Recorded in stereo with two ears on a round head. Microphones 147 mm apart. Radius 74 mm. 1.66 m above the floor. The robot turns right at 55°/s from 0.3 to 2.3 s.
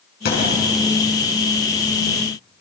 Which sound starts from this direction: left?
A thud, at 0.2 s.